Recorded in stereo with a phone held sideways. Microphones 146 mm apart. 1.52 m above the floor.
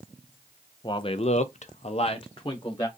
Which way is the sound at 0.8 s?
35° left (ahead or behind).